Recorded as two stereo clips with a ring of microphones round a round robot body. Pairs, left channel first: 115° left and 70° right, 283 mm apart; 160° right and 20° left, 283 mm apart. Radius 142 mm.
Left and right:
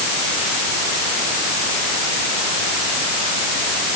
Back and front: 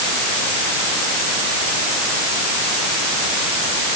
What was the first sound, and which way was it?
Only background noise.